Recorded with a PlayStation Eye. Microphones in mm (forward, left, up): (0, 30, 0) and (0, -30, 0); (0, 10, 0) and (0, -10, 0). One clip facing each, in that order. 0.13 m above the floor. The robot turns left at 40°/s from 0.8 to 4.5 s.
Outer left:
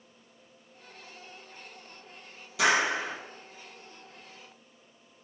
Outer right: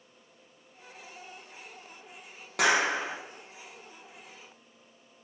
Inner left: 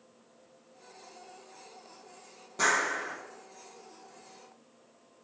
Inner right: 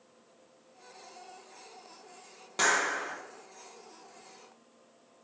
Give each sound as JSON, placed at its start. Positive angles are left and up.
{"t": 2.6, "sound": "a clap", "side_deg": -60, "distance_m": 3.5}